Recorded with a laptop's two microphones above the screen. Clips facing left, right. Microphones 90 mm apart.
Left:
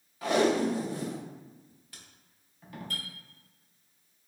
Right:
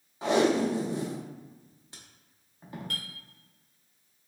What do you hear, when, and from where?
0.2 s tape being pulled: 25° right (ahead or behind), 0.5 m
2.9 s a clink: 70° right (ahead or behind), 0.9 m